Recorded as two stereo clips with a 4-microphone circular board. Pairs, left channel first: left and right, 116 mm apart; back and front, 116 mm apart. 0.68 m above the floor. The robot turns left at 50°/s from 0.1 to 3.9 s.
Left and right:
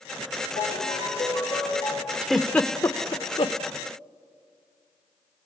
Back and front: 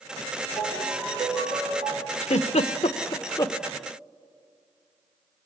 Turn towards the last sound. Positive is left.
turn(degrees=100)